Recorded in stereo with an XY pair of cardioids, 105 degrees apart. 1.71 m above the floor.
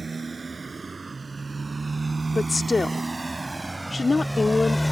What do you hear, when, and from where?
0.0 s a motorcycle: 25° right; by 4.9 s 10° left
2.3 s a woman speaking: 25° left